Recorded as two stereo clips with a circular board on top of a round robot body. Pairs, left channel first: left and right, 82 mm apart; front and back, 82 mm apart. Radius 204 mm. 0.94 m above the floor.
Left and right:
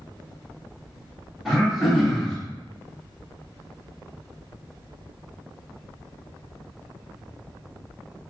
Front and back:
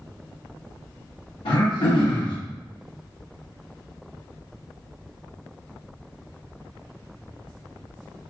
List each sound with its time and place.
1.4 s throat clearing: straight ahead, 1.2 m